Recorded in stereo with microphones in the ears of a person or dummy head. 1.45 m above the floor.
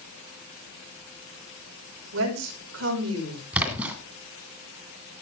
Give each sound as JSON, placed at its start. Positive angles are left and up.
{"t": 2.1, "sound": "a woman speaking", "side_deg": -90, "distance_m": 5.0}
{"t": 3.5, "sound": "a splash", "side_deg": -10, "distance_m": 2.0}